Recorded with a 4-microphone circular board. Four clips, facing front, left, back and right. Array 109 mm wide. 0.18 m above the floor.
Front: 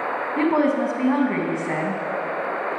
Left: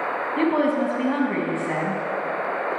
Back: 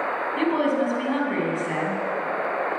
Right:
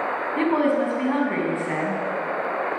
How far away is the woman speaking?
About 1.2 m.